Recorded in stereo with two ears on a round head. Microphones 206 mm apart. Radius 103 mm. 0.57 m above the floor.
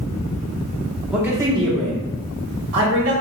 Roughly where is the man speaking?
Centre.